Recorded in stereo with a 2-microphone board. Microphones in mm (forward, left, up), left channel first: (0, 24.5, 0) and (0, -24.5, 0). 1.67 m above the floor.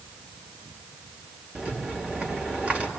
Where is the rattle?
25° right (ahead or behind), 2.5 m.